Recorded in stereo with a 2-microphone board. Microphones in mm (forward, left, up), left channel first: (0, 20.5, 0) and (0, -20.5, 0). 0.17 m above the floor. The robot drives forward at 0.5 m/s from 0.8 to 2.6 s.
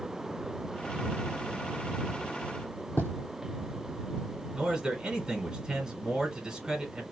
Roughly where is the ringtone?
I don't hear a ringtone.